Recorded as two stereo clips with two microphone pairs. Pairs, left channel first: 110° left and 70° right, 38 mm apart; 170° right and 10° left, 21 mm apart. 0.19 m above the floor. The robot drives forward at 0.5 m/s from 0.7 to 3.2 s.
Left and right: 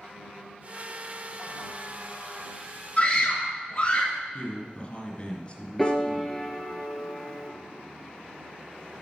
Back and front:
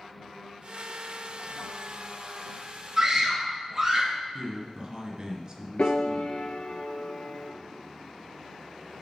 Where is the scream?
50° left, 1.9 m; by 4.2 s 55° left, 1.8 m.